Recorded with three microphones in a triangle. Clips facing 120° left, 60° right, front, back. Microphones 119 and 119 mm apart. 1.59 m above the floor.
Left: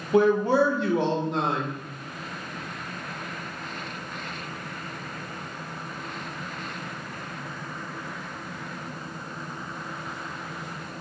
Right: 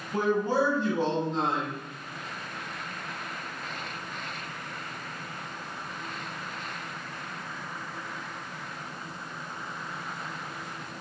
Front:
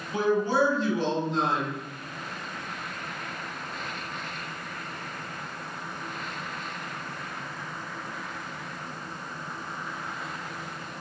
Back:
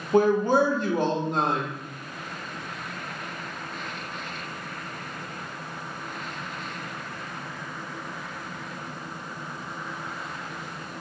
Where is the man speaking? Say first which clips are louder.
Left 6 dB, back 4 dB; 140° left, 0.7 m.